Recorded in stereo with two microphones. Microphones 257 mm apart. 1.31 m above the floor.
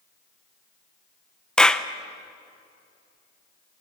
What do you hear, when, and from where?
1.6 s a clap: 5° left (ahead or behind), 0.7 m